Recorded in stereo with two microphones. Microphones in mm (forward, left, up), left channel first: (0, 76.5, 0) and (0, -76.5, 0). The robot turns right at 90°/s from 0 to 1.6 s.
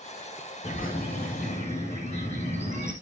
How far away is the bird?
About 6 m.